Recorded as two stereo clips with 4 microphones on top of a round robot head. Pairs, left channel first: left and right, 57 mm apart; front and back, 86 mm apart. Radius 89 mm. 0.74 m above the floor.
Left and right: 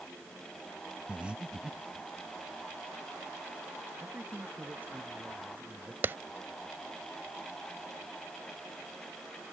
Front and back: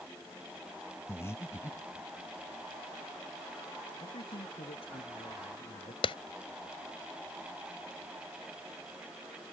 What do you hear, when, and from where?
1.1 s breathing: 30° right
4.0 s a man speaking: 25° right
6.0 s a clap: 30° right